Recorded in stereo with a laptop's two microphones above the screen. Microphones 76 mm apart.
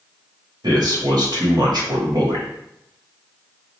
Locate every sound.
0.6 s a man speaking: 65° right (ahead or behind), 1.3 m